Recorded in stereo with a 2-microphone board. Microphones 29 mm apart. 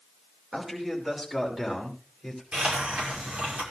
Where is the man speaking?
15° right (ahead or behind), 6 m; by 2.4 s 5° right (ahead or behind), 6.5 m.